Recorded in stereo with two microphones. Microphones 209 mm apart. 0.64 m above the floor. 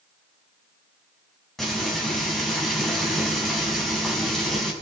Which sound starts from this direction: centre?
Frying, at 1.6 s.